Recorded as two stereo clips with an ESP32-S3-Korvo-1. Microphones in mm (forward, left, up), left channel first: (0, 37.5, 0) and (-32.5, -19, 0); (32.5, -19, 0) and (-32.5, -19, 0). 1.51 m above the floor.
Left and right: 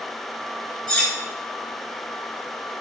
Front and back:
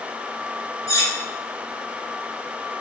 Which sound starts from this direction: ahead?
Cutlery clinking, at 0.9 s.